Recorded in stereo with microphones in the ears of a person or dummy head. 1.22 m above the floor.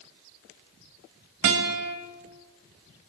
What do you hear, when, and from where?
1.4 s a guitar: 65° right (ahead or behind), 2.0 m